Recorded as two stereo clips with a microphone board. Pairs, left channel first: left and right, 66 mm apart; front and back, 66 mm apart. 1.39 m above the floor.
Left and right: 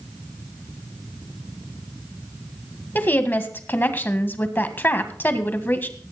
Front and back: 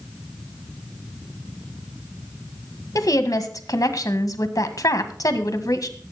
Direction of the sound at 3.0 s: 30° left.